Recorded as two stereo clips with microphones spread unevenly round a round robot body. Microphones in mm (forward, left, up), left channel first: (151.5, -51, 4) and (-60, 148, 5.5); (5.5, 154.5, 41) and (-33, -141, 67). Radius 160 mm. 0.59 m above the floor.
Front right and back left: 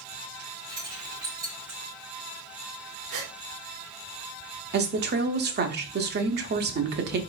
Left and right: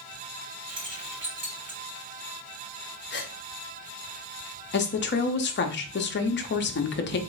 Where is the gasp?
140° left, 1.3 m.